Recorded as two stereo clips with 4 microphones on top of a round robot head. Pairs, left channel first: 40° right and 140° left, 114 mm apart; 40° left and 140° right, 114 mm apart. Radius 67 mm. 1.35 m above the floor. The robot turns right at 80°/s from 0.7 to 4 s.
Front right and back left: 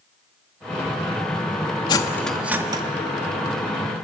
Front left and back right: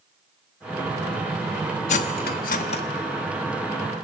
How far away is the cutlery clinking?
About 1.2 m.